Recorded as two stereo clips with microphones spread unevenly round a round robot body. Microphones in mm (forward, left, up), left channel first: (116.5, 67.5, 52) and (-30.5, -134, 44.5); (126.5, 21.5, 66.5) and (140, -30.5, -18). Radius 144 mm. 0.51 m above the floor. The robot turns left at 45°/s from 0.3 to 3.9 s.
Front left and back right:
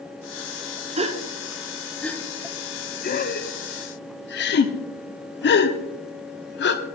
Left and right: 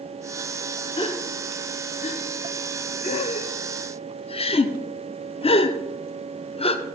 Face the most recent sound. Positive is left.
turn(degrees=55)